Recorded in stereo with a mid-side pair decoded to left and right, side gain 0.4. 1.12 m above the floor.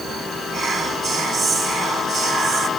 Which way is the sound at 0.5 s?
65° right.